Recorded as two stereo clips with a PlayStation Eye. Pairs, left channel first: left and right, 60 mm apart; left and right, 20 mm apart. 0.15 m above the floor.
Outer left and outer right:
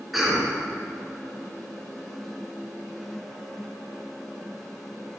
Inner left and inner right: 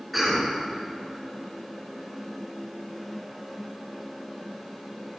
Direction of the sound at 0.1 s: Centre (ahead or behind).